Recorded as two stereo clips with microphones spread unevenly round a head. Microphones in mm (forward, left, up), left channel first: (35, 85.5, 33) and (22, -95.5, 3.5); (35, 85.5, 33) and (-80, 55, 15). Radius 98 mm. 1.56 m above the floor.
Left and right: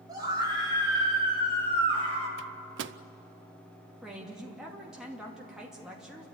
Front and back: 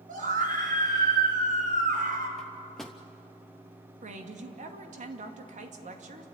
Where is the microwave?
70° right, 0.6 m.